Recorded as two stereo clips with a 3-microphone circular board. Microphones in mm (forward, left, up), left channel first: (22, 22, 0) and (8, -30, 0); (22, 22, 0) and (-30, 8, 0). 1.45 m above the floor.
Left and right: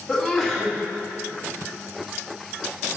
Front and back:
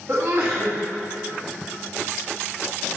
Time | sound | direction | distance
0.1 | a sneeze | 160° left | 2 m